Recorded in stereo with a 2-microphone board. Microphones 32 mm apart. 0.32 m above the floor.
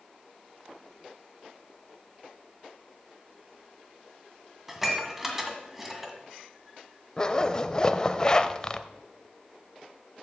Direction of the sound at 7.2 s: 25° left (ahead or behind).